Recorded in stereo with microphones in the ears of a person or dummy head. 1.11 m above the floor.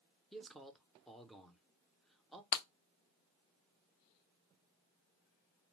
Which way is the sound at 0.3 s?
Centre (ahead or behind).